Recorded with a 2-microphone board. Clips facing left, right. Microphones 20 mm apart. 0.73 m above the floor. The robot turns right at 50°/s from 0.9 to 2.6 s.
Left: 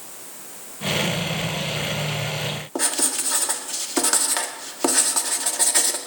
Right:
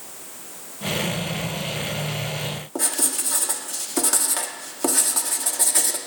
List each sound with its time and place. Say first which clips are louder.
2.8 s writing: left 1 dB; 25° left (ahead or behind), 1.4 m